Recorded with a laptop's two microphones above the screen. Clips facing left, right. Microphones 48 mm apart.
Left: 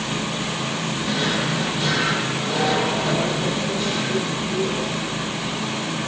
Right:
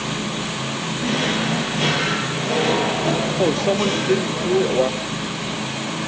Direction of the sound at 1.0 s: 85° right.